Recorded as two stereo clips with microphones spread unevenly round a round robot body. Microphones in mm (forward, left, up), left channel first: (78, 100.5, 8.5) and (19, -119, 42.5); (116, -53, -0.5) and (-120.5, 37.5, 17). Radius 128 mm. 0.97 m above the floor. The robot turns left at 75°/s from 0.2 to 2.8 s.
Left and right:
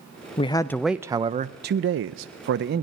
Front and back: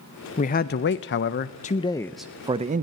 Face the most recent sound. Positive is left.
turn(degrees=-155)